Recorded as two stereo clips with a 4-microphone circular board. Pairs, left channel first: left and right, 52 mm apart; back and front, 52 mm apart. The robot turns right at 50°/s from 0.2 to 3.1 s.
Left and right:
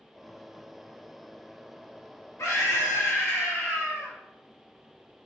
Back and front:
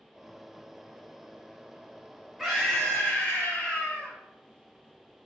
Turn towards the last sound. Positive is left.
turn(degrees=130)